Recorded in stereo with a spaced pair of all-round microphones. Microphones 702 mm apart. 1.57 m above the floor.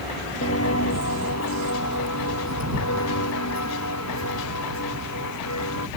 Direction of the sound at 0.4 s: 20° left (ahead or behind).